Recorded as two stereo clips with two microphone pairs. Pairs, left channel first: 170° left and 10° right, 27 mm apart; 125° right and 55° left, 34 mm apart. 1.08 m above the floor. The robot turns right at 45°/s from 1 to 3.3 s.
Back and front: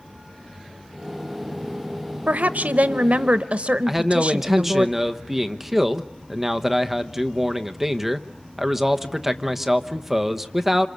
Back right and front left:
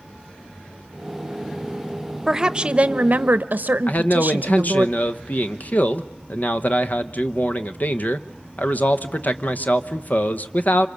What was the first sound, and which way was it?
A woman speaking, 20° right.